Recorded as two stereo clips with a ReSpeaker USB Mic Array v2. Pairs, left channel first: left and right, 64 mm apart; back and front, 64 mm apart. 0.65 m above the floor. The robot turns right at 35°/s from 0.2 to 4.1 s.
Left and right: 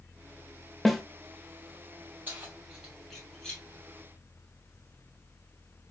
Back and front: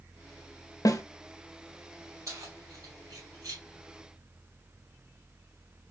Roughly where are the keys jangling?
Ahead right.